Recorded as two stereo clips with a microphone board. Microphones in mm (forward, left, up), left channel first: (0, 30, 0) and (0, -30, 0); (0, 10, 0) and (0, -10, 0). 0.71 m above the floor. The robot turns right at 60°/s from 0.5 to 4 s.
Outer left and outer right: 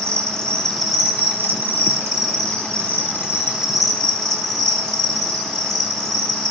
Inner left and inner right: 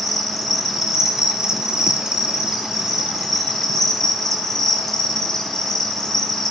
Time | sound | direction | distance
0.0 | an insect | 160° left | 4.5 m